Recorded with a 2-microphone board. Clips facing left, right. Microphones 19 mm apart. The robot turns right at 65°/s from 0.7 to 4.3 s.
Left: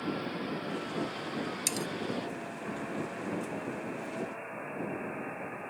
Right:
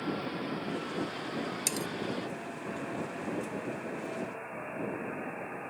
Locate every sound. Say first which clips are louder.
1.7 s cutlery clinking: left 1 dB; centre (ahead or behind); by 1.9 s 15° left (ahead or behind)